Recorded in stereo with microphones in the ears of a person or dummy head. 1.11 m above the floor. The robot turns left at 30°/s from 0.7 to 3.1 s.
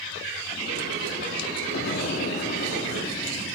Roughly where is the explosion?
Ahead left.